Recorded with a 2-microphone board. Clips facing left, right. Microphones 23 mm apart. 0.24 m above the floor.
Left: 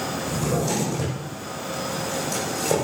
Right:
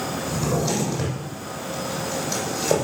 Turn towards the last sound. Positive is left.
turn(degrees=-35)  # may be behind; listen again after turning